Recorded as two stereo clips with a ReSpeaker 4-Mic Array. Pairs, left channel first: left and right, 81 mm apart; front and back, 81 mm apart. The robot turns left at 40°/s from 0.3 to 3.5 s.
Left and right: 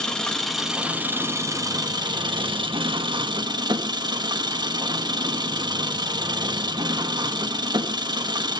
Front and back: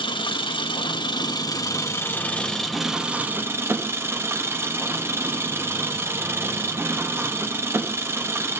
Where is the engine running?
10° left, 1.2 m; by 8.6 s 120° right, 1.2 m.